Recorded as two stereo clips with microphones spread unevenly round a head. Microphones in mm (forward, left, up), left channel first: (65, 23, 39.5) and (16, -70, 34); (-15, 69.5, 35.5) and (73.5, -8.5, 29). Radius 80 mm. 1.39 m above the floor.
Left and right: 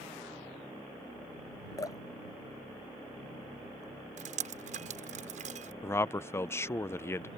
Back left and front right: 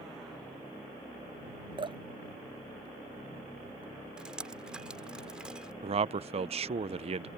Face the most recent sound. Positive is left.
turn(degrees=-5)